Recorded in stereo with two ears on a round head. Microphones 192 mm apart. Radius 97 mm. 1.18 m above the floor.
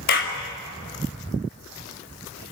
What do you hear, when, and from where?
0.1 s a clap: 65° left (ahead or behind), 5 m